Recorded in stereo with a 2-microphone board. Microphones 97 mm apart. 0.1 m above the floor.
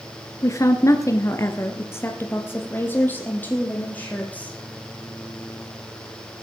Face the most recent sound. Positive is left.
turn(degrees=15)  # may be behind; listen again after turning